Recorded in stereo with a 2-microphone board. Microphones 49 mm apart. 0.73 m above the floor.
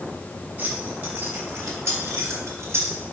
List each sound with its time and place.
0.6 s keys jangling: 40° right (ahead or behind), 3 m; by 3.0 s 60° right (ahead or behind), 2 m